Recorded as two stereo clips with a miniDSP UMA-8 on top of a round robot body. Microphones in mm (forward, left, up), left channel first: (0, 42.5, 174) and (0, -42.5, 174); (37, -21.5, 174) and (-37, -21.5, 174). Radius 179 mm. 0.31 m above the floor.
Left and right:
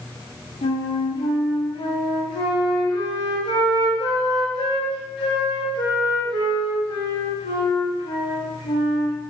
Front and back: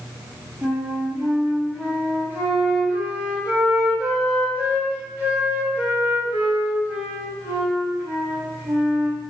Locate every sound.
0.6 s a flute: 105° left, 0.6 m